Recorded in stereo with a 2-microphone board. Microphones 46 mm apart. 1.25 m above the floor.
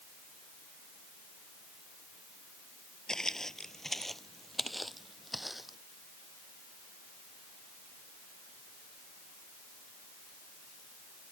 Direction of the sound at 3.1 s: 15° left (ahead or behind).